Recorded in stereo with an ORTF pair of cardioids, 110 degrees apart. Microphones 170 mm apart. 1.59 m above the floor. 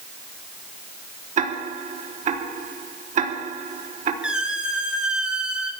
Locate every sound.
1.4 s ticking: 45° right, 3.5 m
4.2 s a squeak: 5° right, 3.5 m